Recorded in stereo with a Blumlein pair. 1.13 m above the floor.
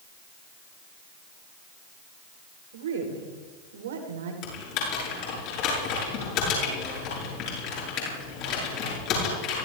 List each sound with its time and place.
2.7 s a woman speaking: 60° right, 4 m
4.4 s typing on a keyboard: 40° left, 8 m